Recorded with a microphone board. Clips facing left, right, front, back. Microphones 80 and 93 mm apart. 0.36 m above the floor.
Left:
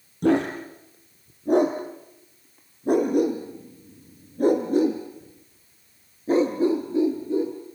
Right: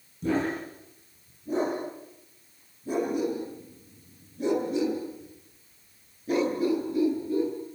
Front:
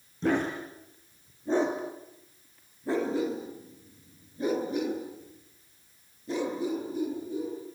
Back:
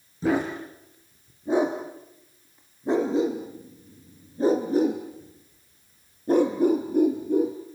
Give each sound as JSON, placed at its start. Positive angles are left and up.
{"t": 0.2, "sound": "a dog barking", "azimuth_deg": 90, "distance_m": 5.0}